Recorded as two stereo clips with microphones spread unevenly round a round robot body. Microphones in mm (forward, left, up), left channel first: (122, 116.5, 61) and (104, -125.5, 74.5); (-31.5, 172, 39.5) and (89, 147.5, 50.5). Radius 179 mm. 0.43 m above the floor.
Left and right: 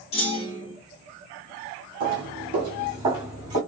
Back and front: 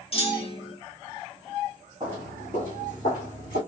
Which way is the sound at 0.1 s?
145° left.